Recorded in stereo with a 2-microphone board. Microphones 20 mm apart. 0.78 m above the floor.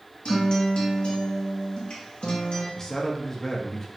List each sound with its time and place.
0.2 s a guitar: 50° left (ahead or behind), 0.8 m
2.8 s a man speaking: 25° left (ahead or behind), 0.6 m